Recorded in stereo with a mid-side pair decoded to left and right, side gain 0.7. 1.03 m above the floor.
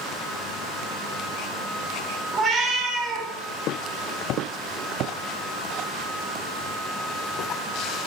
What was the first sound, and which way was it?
A cat meowing, 30° right.